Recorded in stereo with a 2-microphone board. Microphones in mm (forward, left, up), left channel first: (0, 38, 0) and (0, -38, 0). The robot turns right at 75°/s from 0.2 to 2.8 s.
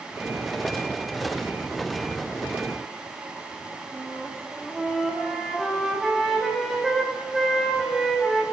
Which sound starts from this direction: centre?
A flute, at 3.9 s.